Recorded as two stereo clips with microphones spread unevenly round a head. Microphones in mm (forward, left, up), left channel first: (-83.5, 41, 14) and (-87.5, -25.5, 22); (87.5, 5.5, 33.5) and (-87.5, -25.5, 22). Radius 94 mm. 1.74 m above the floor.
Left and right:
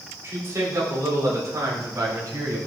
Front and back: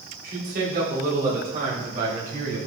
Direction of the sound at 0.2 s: 135° right.